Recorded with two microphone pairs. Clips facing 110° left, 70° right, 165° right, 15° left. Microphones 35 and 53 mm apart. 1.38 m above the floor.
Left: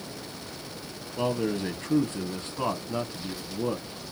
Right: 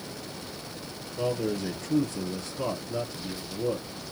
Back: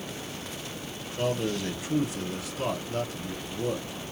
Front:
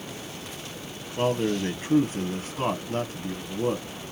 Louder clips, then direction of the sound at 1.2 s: Left 1 dB, front 4 dB; 60° left.